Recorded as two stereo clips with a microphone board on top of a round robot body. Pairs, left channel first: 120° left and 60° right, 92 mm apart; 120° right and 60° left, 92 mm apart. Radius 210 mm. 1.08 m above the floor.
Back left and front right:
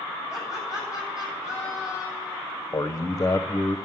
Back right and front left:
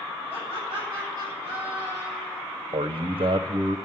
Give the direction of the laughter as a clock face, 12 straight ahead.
6 o'clock.